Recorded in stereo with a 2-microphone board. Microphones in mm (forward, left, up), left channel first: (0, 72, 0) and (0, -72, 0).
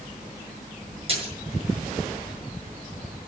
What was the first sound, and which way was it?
A splash, 40° right (ahead or behind).